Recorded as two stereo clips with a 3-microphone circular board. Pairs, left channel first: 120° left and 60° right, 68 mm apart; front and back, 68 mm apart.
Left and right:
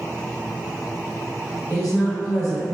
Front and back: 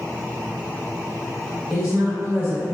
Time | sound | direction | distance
1.7 | a woman speaking | 125° right | 2.0 m